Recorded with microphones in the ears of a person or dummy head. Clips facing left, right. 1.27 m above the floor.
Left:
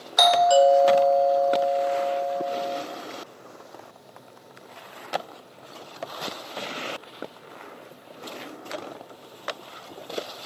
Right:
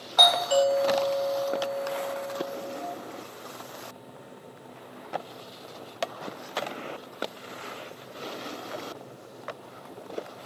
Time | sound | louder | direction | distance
0.2 | a doorbell | left 6 dB | 30° left (ahead or behind) | 1.0 m